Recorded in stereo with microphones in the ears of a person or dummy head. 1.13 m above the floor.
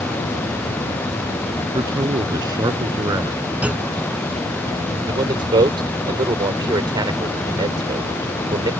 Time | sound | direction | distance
1.7 | a man speaking | 20° right (ahead or behind) | ?
3.6 | a clunk | 5° right (ahead or behind) | ?
5.1 | a man speaking | 20° right (ahead or behind) | ?